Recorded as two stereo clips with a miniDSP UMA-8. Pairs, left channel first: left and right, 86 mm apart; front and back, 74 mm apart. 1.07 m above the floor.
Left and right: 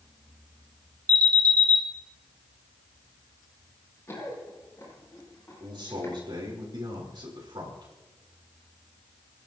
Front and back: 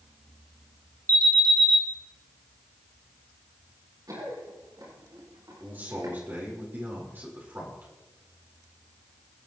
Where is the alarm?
140° right, 2 m.